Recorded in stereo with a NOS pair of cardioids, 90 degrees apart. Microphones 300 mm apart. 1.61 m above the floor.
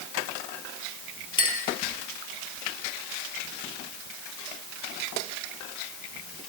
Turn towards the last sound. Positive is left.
turn(degrees=15)